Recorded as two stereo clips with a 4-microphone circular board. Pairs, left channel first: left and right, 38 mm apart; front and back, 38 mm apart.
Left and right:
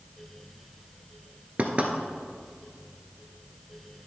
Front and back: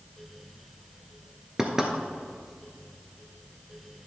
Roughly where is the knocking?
Right.